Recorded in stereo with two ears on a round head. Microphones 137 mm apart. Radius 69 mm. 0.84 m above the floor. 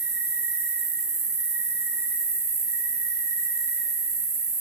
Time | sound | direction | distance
0.0 | an insect | 20° right (ahead or behind) | 4 m